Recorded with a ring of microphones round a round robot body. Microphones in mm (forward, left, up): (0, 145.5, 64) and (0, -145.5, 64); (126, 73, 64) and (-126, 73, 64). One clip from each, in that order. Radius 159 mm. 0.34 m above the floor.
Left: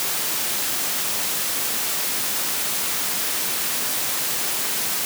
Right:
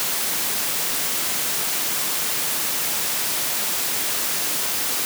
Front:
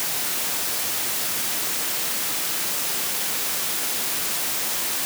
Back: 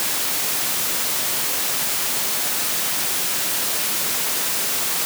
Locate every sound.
Only background noise.